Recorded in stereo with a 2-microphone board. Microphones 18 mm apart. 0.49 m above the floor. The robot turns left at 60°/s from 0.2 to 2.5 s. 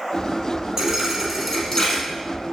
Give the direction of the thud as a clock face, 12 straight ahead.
5 o'clock.